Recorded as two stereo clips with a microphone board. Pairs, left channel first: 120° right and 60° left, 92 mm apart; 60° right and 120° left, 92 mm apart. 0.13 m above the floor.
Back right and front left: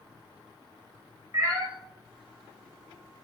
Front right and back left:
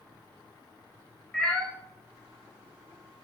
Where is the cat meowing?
20° left, 0.9 m.